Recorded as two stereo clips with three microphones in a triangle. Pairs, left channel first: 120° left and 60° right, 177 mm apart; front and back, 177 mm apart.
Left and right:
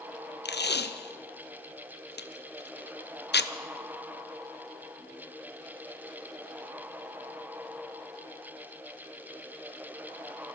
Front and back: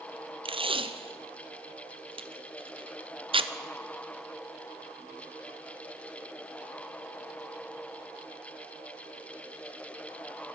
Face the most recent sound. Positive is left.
turn(degrees=125)